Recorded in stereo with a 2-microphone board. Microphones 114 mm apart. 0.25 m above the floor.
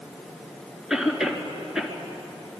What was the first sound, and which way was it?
A cough, 5° right (ahead or behind).